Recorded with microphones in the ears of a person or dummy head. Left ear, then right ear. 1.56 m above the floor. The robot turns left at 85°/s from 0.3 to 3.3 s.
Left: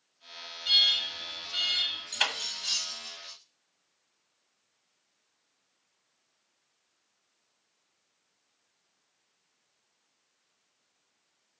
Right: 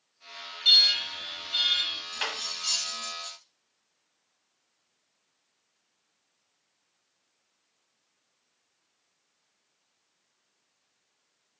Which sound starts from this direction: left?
Cutlery clinking, at 2.1 s.